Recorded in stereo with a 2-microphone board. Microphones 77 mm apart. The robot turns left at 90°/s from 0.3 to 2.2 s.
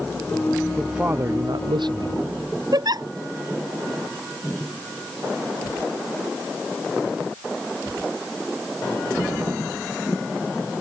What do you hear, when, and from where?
0.8 s a man speaking: 5° left; by 2.2 s 125° right
2.7 s a giggle: 60° right (ahead or behind)